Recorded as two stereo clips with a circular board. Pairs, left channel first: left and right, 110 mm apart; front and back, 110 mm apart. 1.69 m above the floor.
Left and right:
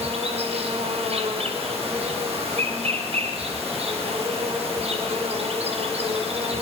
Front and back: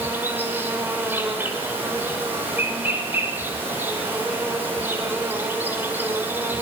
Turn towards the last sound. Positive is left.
turn(degrees=-110)